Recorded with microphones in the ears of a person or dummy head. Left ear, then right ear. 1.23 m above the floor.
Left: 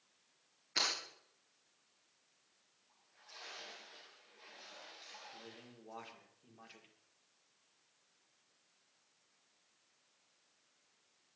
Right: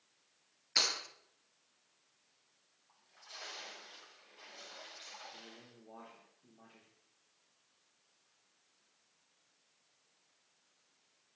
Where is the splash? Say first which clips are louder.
Right 5 dB; 55° right (ahead or behind), 7.5 m.